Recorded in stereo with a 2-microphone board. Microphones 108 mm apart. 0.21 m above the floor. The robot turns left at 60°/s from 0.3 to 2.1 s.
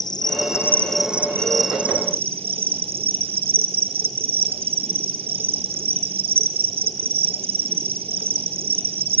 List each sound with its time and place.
0.0 s an insect: 40° left, 1.0 m; by 9.2 s 65° right, 1.0 m